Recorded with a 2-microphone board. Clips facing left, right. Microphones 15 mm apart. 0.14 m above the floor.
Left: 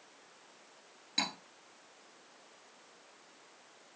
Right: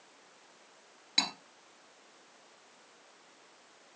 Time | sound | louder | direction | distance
1.2 | cutlery clinking | right 4 dB | 15° right (ahead or behind) | 1.6 m